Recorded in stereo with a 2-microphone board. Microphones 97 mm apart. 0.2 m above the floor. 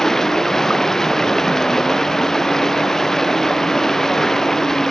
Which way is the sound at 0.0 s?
5° left (ahead or behind).